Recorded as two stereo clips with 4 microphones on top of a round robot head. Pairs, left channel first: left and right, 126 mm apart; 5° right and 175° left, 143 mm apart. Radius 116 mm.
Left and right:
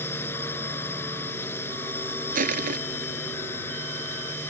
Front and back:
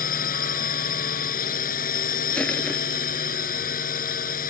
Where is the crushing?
90° right.